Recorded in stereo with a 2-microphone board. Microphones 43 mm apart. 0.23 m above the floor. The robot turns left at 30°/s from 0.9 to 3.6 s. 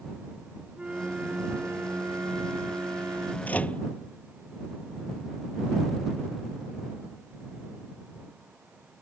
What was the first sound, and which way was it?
A flute, 25° right.